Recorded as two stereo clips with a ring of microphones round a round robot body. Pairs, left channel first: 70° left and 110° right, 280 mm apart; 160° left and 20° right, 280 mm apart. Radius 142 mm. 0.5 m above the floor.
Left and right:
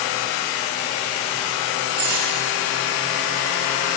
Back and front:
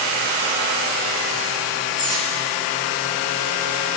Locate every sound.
2.0 s cutlery clinking: 135° right, 5.5 m